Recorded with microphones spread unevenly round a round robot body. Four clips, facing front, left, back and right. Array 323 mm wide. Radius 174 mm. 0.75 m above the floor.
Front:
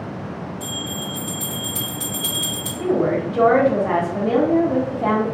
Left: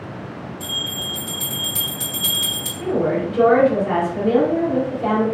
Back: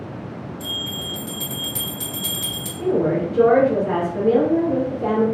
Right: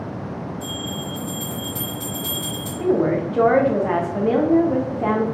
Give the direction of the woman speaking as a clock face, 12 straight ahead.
2 o'clock.